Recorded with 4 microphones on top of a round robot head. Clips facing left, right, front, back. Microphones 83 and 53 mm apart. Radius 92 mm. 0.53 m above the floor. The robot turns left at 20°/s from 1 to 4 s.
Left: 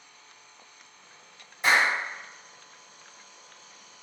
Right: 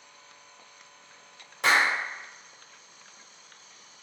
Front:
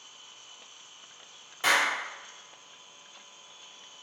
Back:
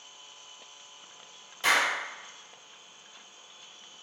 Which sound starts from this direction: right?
A clap, at 1.6 s.